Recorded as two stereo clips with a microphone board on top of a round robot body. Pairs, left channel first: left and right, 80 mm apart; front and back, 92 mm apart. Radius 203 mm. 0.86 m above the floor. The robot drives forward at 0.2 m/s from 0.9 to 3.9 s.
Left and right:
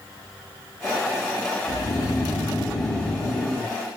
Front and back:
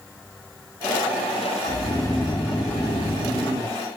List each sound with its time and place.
1.7 s snoring: 55° left, 0.6 m; by 3.7 s 120° left, 0.5 m